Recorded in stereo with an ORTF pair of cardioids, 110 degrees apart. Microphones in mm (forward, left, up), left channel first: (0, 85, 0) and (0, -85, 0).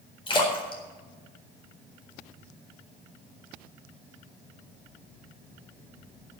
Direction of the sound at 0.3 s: 30° left.